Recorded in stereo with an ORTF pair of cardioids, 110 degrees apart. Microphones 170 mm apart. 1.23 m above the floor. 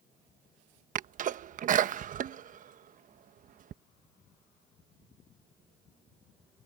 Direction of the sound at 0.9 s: 50° right.